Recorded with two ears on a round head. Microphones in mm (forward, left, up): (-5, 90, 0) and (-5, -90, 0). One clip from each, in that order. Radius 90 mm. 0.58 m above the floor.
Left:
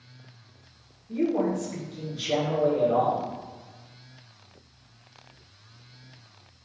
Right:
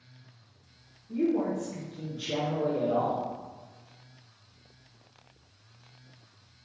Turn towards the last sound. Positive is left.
turn(degrees=45)  # may be behind; listen again after turning